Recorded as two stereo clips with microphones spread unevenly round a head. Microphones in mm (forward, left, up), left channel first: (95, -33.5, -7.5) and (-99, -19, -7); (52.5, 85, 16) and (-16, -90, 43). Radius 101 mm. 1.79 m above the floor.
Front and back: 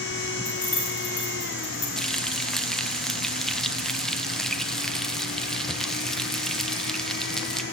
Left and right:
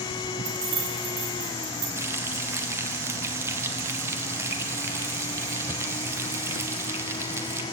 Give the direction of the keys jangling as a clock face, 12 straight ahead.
2 o'clock.